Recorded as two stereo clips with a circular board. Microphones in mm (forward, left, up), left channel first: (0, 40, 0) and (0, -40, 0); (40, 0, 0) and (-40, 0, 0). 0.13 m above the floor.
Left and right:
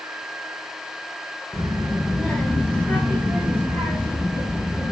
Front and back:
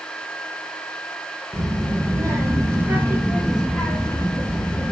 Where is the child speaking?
170° left, 1.5 m; by 4.9 s 40° left, 1.3 m.